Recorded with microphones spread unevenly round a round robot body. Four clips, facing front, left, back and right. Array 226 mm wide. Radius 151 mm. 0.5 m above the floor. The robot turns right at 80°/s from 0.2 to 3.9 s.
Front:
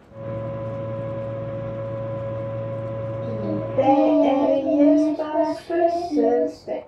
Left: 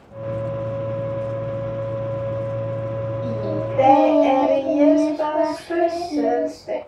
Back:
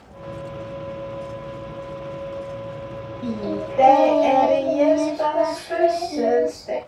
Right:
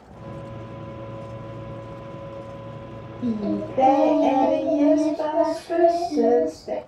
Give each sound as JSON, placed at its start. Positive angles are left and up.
{"t": 3.2, "sound": "singing", "azimuth_deg": -80, "distance_m": 5.0}